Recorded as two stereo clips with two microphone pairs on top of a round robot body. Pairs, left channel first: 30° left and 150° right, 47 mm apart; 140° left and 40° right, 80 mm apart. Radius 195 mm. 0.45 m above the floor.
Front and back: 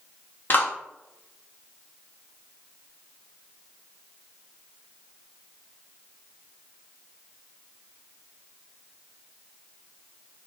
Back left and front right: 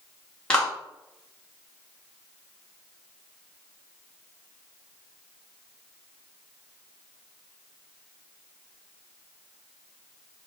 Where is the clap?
65° left, 1.7 m.